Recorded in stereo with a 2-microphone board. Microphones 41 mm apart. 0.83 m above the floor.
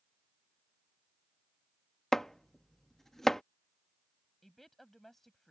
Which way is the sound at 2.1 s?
10° left (ahead or behind).